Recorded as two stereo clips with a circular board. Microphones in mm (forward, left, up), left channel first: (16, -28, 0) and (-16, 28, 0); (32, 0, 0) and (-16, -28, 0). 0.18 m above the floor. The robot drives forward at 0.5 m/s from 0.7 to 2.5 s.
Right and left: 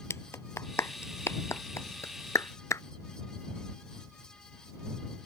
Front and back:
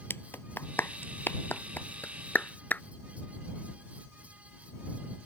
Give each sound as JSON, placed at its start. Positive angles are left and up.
{"t": 0.1, "sound": "a clap", "azimuth_deg": -15}